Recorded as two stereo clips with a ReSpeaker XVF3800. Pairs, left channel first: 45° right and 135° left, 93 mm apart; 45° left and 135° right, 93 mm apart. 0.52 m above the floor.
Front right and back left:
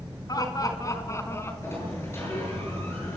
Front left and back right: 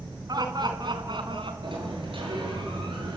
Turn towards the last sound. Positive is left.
turn(degrees=-105)